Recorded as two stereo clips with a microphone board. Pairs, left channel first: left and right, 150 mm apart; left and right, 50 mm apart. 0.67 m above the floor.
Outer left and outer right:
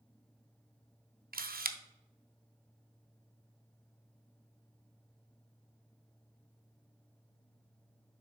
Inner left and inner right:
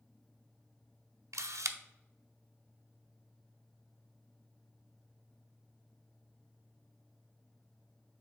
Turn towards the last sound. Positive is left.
turn(degrees=-80)